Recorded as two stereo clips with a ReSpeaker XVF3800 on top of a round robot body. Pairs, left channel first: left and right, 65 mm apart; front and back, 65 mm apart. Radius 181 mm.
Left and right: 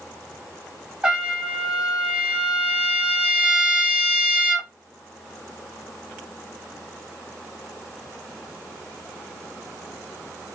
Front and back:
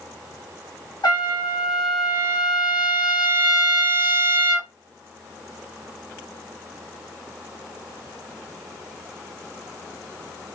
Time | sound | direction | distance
1.0 | a trumpet | 10° right | 1.0 m